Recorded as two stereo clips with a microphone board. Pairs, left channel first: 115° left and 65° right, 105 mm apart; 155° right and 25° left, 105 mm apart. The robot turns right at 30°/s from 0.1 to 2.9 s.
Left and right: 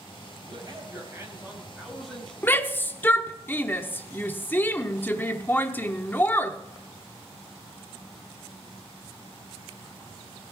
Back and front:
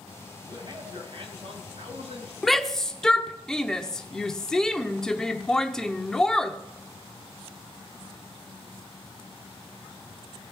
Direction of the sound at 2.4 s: 115° left.